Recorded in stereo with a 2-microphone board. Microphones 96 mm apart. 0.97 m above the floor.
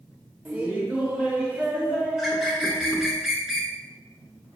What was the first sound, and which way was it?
Laughter, 15° right (ahead or behind).